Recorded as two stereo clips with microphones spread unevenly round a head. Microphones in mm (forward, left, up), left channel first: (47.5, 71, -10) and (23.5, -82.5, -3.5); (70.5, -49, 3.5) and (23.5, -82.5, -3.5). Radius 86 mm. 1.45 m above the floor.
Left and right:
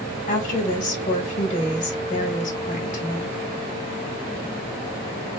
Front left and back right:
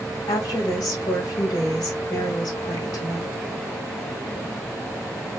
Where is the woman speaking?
40° left, 2.5 m.